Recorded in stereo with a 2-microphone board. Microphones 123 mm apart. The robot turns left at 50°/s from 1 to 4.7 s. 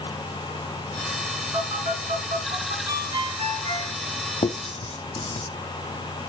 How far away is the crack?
No crack in this recording.